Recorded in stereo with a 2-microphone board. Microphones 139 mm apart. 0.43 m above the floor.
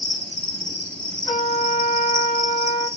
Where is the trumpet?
50° left (ahead or behind), 2.5 m.